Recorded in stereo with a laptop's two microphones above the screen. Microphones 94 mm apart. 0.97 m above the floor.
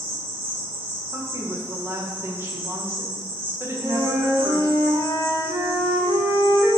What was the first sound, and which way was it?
An insect, 75° right (ahead or behind).